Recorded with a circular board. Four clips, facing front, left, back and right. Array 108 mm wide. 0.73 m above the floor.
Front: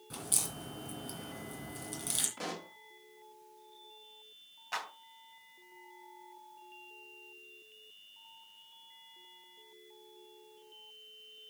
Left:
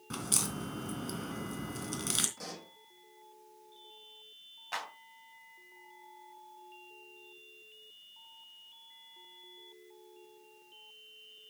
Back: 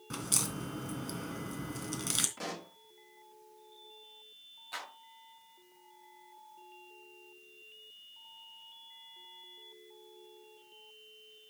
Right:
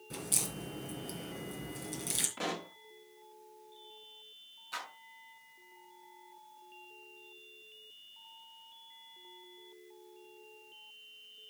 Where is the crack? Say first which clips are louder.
Left 4 dB, back 5 dB; 130° left, 3 m.